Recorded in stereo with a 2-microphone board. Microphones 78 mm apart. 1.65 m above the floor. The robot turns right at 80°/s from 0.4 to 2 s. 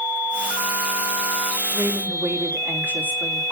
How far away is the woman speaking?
About 4 m.